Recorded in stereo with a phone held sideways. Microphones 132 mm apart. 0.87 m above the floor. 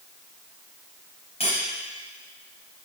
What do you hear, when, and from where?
1.4 s cutlery clinking: 50° left (ahead or behind), 3.5 m